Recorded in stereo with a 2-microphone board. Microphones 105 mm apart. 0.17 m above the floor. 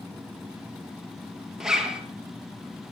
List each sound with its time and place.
1.6 s a zipper: 5° right (ahead or behind), 2 m